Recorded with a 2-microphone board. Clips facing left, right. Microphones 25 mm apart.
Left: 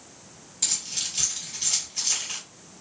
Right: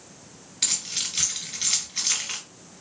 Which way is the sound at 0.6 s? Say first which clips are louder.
Right 2 dB; 45° right (ahead or behind).